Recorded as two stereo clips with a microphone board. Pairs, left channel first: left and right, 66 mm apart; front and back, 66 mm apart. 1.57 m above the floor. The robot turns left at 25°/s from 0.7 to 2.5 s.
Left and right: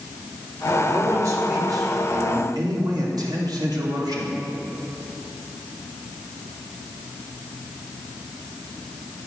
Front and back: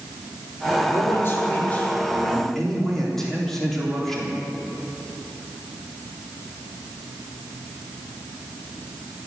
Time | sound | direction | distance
0.9 | a man speaking | 45° right | 3.5 m